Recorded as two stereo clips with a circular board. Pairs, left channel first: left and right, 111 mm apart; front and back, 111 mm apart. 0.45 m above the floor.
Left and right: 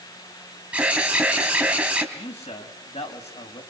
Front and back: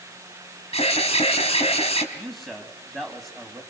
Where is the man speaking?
90° left, 3 m.